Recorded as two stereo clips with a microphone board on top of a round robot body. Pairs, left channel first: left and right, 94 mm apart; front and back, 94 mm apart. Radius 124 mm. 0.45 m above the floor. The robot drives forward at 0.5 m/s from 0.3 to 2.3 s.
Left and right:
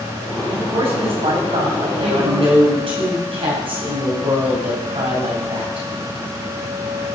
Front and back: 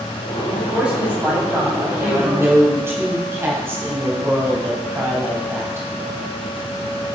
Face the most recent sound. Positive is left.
turn(degrees=-115)